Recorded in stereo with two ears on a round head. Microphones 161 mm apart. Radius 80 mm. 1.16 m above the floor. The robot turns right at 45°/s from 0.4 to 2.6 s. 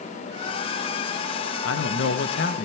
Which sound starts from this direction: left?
A man speaking, at 1.6 s.